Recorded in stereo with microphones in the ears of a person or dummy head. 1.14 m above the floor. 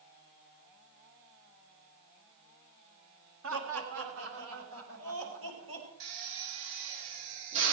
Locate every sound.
3.4 s laughter: 80° right, 3 m
6.0 s a drill: 70° right (ahead or behind), 5.5 m